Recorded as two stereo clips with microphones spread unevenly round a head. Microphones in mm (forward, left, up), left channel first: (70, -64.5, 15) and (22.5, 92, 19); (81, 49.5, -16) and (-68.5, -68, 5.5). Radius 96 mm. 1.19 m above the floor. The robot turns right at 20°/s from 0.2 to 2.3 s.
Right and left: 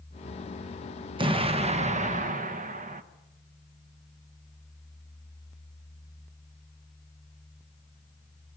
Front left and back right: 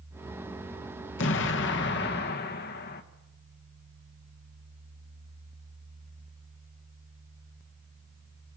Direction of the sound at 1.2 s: 50° left.